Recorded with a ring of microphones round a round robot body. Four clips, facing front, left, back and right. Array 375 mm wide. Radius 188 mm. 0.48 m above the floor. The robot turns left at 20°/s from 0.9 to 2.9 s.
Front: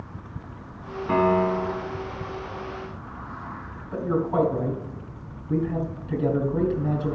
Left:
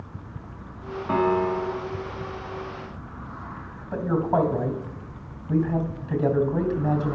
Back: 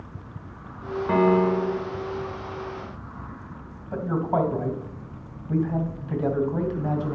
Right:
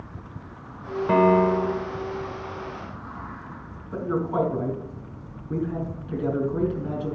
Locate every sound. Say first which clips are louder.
1.1 s a piano: right 4 dB, back 1 dB; 110° right, 1.9 m; by 1.9 s 130° right, 1.9 m
3.9 s a man speaking: left 2 dB, front 1 dB; 135° left, 3 m